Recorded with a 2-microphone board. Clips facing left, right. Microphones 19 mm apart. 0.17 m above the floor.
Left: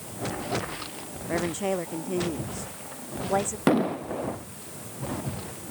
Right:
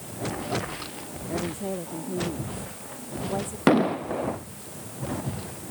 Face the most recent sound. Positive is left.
turn(degrees=-20)  # may be behind; listen again after turning